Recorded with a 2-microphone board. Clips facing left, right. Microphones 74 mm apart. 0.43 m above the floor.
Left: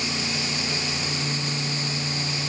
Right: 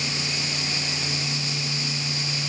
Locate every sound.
Only background noise.